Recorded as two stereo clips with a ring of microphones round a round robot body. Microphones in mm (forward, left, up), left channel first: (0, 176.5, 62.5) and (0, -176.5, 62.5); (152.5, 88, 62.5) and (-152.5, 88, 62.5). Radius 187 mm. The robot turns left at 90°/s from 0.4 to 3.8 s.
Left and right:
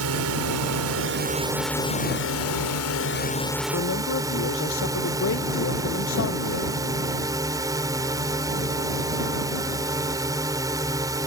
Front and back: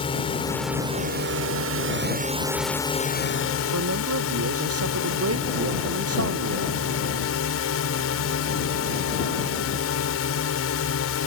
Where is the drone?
70° right; by 11.3 s 15° right.